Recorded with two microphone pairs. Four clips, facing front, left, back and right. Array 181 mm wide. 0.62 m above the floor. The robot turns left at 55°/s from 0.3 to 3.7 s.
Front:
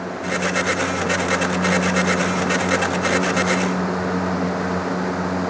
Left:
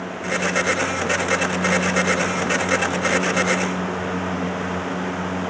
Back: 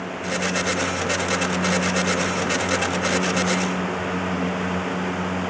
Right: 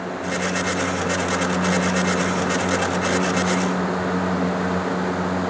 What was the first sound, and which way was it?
Only background noise.